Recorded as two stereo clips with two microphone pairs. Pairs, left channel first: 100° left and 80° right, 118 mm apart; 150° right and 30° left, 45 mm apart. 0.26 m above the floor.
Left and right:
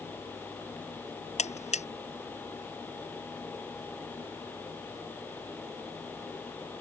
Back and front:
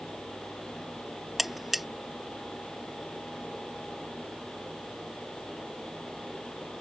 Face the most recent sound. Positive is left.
turn(degrees=120)